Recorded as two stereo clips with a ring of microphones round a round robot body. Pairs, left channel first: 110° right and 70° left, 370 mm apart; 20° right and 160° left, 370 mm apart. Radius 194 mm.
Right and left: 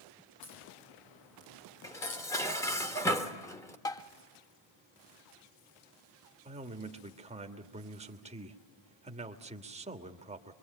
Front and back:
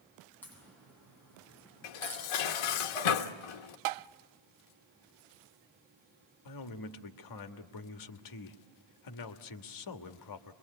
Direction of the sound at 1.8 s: 30° right.